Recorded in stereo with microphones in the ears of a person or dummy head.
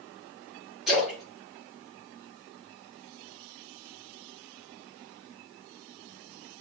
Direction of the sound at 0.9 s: Centre (ahead or behind).